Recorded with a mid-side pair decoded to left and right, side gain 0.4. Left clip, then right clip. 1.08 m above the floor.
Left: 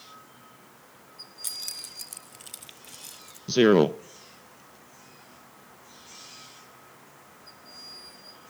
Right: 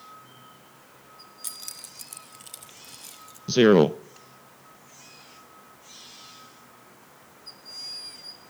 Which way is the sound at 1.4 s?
10° left.